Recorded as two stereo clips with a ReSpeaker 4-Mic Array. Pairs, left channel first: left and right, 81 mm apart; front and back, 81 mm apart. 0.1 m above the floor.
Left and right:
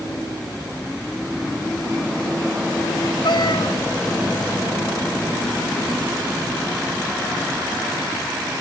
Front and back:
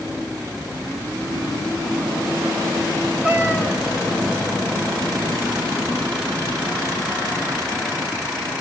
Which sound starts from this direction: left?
A cat meowing, at 3.2 s.